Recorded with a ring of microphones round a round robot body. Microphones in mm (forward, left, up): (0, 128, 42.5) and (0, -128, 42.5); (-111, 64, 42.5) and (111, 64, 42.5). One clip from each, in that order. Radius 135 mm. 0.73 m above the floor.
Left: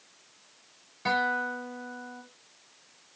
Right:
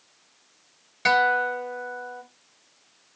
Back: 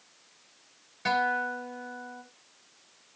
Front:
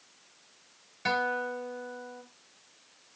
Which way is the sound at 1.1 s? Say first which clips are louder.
Right 7 dB, back 2 dB; 90° right.